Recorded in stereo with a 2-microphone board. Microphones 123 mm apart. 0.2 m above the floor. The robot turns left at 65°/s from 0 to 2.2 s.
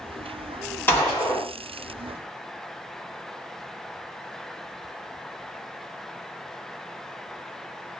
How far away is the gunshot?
About 1.4 m.